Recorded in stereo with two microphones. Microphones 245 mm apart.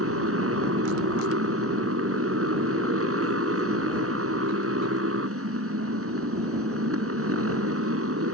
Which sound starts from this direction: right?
A motorcycle, at 0.0 s.